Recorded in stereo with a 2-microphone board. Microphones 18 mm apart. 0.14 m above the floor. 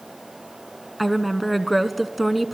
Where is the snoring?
No snoring in this recording.